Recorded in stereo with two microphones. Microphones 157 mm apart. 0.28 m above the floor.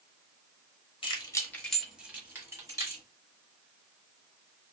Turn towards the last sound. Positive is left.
turn(degrees=-20)  # may be behind; listen again after turning